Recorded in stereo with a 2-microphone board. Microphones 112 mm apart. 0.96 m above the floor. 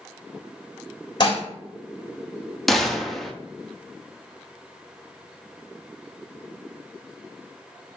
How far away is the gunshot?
About 0.5 m.